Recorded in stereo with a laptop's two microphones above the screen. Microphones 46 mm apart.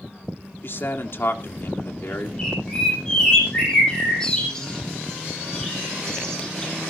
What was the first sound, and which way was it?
A man speaking, 55° left (ahead or behind).